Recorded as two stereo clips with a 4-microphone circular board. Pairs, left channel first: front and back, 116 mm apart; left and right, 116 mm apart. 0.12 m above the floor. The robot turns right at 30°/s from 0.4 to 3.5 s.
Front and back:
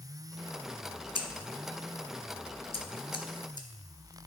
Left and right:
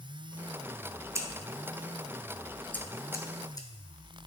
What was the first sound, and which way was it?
Scissors, 30° right.